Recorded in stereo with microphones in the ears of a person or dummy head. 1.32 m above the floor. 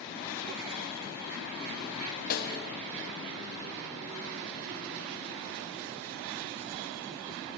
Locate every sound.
2.3 s a snare drum: 45° left (ahead or behind), 0.7 m